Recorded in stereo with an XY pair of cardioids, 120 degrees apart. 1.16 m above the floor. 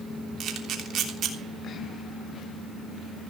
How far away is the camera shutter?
About 3 m.